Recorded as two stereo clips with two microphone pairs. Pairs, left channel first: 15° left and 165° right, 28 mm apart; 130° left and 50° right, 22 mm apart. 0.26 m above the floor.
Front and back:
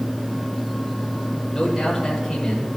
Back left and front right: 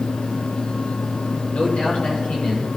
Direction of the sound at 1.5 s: 95° left.